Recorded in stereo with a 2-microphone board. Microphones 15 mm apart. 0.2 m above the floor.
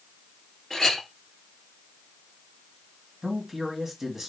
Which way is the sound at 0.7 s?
20° left (ahead or behind).